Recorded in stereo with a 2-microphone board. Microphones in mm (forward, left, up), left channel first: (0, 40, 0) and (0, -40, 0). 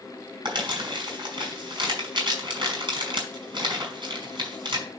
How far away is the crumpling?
About 3.5 m.